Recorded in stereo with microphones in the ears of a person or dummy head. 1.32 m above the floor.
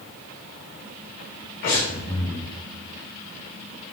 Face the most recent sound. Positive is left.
turn(degrees=55)  # may be behind; listen again after turning